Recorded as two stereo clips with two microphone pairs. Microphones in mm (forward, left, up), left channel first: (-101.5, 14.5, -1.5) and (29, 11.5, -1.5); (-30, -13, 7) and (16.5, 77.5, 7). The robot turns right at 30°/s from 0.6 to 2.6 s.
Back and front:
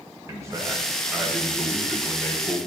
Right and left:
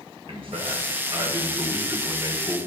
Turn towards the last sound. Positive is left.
turn(degrees=125)